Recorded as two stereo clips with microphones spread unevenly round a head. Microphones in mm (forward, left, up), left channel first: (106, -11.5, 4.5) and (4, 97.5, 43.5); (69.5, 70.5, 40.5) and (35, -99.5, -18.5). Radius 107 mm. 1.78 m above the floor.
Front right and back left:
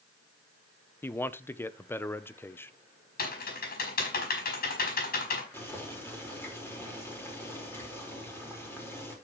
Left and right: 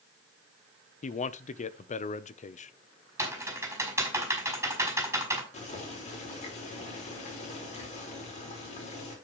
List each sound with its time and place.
1.0 s a man speaking: 30° left, 0.8 m
3.2 s typing on a keyboard: 20° right, 5 m
5.5 s boiling: 30° left, 4.5 m